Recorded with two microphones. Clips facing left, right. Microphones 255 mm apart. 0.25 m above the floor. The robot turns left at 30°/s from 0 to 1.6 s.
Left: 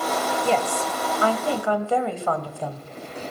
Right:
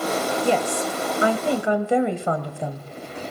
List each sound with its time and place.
0.4 s a woman speaking: 15° right (ahead or behind), 0.9 m; by 2.9 s 20° right (ahead or behind), 0.9 m